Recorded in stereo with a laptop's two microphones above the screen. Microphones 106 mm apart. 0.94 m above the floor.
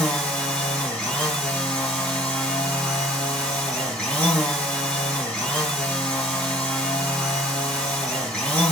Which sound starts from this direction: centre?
A machine running, at 0.0 s.